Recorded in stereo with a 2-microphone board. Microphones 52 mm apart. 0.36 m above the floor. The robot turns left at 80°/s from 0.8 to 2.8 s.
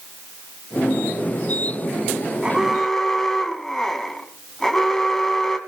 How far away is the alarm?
About 2 m.